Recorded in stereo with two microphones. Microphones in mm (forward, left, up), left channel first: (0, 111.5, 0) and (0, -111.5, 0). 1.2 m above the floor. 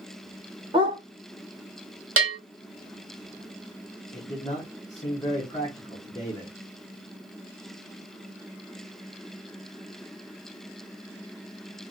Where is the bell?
70° right (ahead or behind), 0.6 m.